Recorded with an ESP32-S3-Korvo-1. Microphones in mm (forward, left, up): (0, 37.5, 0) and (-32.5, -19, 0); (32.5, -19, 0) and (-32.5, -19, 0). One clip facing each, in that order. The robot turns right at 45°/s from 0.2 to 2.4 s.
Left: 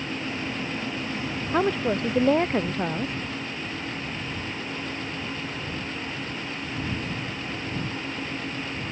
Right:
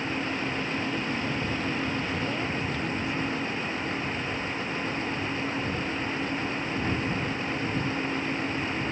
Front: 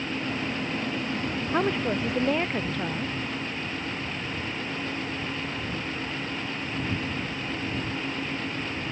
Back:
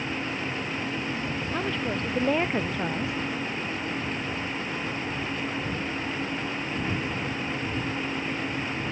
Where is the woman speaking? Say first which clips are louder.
Left 6 dB, front 5 dB; 60° left; by 3.1 s 100° left.